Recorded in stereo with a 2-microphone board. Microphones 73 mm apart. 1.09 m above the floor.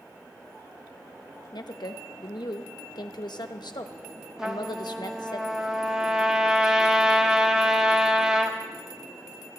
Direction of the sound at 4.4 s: 10° right (ahead or behind).